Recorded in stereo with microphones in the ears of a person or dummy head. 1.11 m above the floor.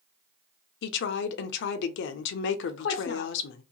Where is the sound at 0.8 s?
65° left (ahead or behind), 0.6 m.